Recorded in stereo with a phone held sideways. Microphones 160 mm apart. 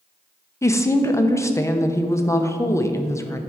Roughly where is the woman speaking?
Centre.